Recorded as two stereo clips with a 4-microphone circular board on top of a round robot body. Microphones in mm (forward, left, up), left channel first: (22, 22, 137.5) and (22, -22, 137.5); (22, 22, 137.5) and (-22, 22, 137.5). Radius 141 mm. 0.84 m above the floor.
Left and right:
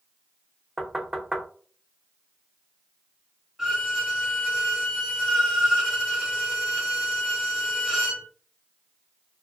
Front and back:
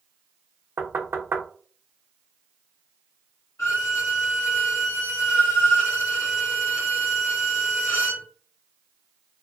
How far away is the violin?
About 1.7 m.